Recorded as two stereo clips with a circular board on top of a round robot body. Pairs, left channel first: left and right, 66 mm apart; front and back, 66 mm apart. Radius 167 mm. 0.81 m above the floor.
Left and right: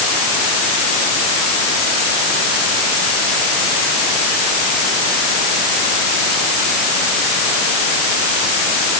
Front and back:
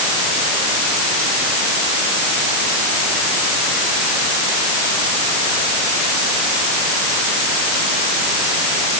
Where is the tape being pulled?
I don't hear tape being pulled.